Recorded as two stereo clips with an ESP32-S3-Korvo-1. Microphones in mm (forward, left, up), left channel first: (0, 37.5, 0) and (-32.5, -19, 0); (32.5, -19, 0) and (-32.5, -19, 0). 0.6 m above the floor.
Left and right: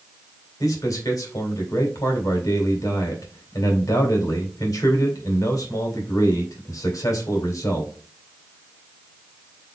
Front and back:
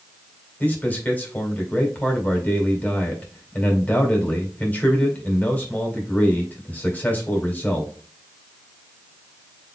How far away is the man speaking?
About 2 m.